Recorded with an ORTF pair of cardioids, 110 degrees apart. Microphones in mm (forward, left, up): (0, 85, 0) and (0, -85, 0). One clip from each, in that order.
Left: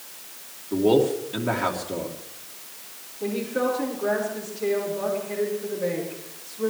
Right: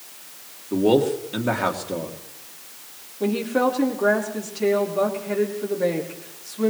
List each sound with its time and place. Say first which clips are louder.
0.7 s a man speaking: right 1 dB; 20° right, 2.5 m
3.2 s a woman speaking: right 4 dB; 70° right, 4.5 m